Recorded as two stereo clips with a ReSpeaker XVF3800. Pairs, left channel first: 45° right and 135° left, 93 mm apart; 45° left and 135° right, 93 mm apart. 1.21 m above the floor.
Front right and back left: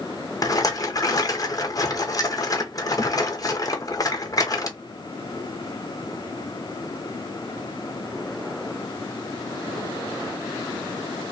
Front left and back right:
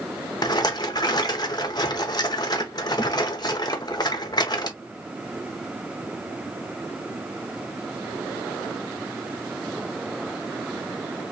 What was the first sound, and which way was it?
A rattle, 5° left.